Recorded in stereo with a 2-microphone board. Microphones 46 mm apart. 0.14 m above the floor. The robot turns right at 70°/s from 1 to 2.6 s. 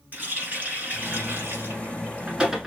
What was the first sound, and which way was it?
A running tap, 40° right (ahead or behind).